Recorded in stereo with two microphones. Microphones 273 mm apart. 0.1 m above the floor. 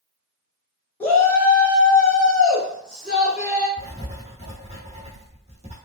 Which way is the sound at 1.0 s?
5° left (ahead or behind).